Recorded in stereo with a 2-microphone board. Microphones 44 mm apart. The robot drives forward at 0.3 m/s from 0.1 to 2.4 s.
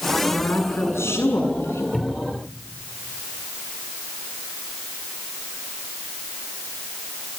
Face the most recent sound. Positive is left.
turn(degrees=5)  # may be behind; listen again after turning